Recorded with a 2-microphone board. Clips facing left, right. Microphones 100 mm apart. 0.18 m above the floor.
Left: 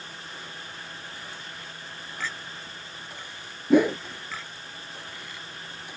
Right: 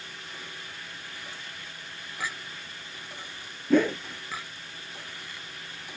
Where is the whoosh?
15° left (ahead or behind).